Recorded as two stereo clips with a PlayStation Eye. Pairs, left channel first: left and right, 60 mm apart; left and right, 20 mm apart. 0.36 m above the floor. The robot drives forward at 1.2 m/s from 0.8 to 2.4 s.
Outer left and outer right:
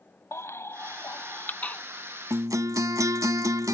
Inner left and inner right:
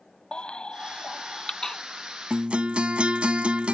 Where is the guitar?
75° right (ahead or behind); by 3.8 s 70° right (ahead or behind).